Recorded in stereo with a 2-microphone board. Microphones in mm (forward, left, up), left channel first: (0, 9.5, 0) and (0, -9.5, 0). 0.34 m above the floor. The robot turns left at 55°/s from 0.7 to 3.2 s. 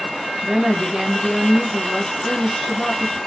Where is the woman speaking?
125° right, 1.3 m; by 3.2 s 100° left, 1.3 m.